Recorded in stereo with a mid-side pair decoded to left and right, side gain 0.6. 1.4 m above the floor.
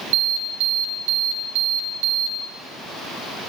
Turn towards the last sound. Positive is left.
turn(degrees=-70)